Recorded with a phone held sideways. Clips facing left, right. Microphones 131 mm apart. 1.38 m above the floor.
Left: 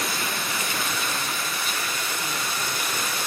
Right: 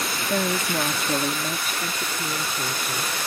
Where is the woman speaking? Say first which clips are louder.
Right 6 dB; 80° right; by 3.1 s 30° right (ahead or behind).